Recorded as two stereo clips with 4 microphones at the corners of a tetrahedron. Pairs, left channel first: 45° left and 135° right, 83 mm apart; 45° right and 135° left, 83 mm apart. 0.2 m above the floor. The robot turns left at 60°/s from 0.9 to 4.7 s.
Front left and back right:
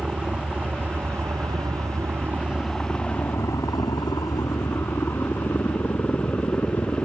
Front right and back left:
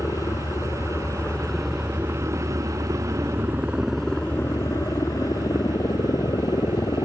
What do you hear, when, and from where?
0.0 s a helicopter: 60° right; by 7.1 s 25° right